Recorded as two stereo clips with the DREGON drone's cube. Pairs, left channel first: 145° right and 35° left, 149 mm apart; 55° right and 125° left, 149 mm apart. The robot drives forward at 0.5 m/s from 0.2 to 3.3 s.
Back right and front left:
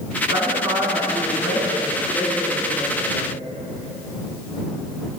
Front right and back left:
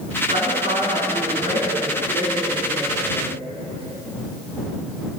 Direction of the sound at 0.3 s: 90° left.